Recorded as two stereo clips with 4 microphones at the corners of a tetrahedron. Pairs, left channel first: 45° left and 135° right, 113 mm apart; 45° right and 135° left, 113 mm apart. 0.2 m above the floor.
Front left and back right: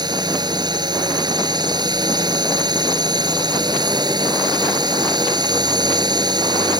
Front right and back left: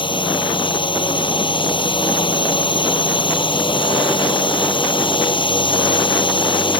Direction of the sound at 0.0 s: 85° right.